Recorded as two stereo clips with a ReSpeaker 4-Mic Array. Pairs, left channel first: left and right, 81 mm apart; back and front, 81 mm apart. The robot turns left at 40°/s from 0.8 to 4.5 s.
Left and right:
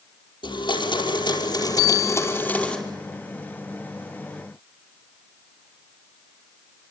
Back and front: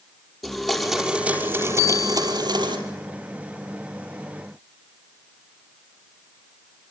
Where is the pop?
No pop in this recording.